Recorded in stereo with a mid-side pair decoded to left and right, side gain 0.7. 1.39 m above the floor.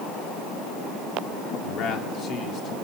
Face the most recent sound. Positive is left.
turn(degrees=40)